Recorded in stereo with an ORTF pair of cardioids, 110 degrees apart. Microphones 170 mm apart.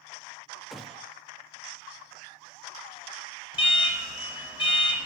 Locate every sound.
0.7 s a gunshot: straight ahead, 0.5 m
3.5 s an alarm: 25° left, 2 m